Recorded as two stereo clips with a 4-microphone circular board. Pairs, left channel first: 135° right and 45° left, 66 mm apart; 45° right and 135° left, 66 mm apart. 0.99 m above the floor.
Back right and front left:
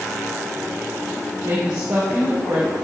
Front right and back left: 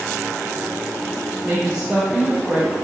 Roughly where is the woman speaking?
Left.